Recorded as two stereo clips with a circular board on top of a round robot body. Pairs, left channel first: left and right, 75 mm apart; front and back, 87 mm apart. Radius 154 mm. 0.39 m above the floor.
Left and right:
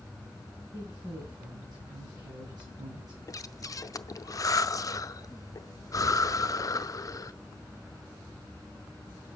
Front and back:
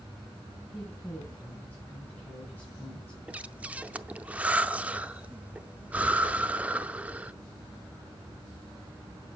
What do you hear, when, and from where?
0.7 s a woman speaking: 65° right, 4 m
3.3 s breathing: 110° left, 0.7 m